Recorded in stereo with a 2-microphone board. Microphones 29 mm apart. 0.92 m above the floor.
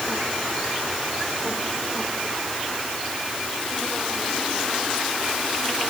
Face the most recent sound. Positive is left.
No sound to turn to.